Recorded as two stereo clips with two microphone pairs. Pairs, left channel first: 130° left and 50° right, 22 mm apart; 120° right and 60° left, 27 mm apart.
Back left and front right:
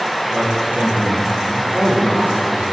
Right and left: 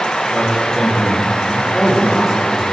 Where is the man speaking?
55° right, 7 m; by 2.7 s 35° right, 8 m.